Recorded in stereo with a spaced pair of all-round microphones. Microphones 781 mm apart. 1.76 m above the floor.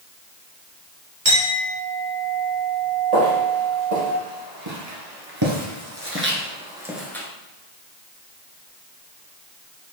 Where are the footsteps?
50° right (ahead or behind), 2.5 m; by 7.3 s 5° left (ahead or behind), 1.7 m.